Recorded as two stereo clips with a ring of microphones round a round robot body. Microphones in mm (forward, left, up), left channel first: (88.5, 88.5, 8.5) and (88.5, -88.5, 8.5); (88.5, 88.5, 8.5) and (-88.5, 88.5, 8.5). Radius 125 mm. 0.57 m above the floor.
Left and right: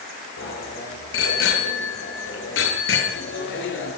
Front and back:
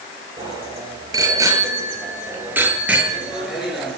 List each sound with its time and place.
0.4 s a bicycle bell: 115° left, 8.5 m; by 4.0 s 90° left, 7 m